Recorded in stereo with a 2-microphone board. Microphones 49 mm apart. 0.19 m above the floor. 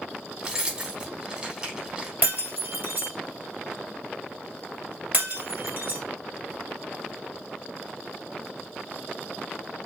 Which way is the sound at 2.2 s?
35° right (ahead or behind).